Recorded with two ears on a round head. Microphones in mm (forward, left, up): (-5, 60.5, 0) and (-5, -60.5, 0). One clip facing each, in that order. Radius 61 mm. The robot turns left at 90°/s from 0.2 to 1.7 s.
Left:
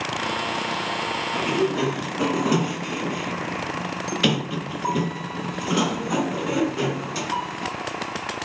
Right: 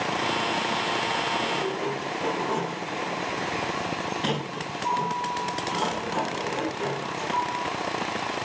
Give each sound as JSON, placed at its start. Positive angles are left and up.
{"t": 1.4, "sound": "a sliding door", "azimuth_deg": 105, "distance_m": 5.5}